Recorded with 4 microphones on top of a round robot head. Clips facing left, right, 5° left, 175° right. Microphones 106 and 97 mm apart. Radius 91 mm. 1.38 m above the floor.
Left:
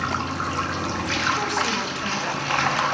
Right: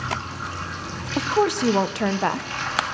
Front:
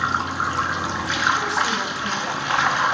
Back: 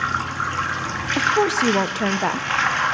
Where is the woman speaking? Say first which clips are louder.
Right 6 dB, back 4 dB; 135° right, 1.0 m.